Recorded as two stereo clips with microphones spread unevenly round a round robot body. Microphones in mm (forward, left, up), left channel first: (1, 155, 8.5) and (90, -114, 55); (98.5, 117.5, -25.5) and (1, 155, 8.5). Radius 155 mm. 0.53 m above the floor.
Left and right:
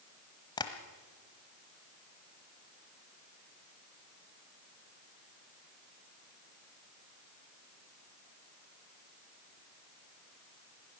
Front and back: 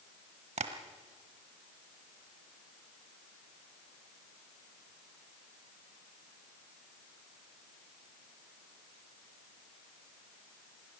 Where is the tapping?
175° right, 1.0 m.